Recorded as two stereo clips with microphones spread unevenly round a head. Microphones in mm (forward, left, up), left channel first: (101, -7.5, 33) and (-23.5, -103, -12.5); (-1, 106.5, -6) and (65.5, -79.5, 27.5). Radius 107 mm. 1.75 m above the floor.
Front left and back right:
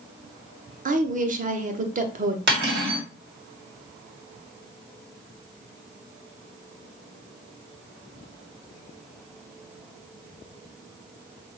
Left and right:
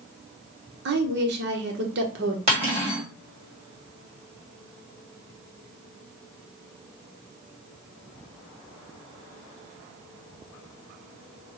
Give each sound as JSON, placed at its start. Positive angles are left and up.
{"t": 0.8, "sound": "a woman speaking", "azimuth_deg": -100, "distance_m": 0.9}
{"t": 2.5, "sound": "cutlery clinking", "azimuth_deg": -130, "distance_m": 2.0}